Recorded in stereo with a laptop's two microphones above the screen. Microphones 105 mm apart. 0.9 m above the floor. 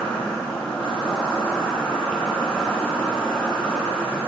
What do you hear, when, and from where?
0.0 s an insect: 10° left (ahead or behind), 2 m